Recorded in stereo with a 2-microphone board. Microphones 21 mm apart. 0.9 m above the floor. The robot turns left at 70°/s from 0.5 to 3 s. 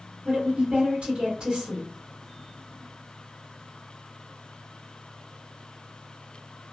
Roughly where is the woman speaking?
Right.